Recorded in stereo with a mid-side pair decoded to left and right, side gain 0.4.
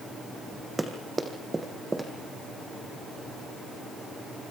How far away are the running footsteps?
About 4 m.